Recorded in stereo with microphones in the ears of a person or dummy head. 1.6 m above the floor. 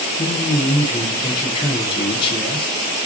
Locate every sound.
0.2 s a man speaking: 25° left (ahead or behind), 1.2 m